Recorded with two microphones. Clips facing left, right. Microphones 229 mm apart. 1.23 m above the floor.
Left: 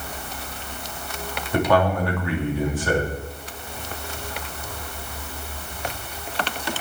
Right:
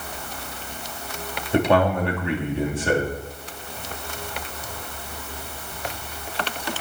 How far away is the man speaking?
About 3 m.